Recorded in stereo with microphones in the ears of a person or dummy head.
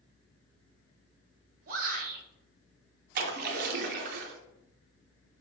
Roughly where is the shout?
Right.